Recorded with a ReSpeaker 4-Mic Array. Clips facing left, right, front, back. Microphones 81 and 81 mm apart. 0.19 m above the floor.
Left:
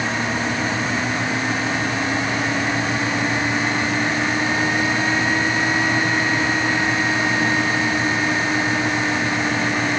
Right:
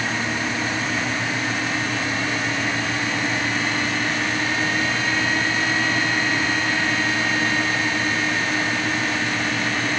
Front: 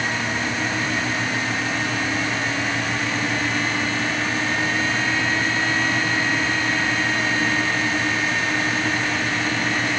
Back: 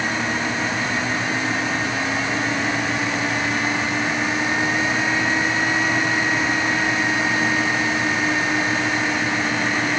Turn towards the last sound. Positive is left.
No sound to turn to.